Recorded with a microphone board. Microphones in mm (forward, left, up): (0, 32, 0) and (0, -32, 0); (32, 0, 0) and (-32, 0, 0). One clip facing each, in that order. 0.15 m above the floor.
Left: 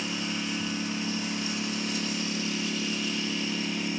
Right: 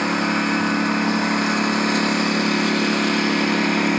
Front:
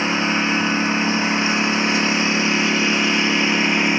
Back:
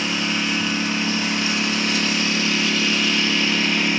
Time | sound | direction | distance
0.0 | a lawn mower | 60° right | ?